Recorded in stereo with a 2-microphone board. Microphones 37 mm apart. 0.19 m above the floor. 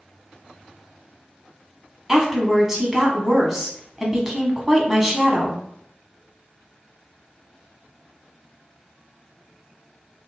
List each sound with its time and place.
2.1 s a woman speaking: 10° right (ahead or behind), 1.3 m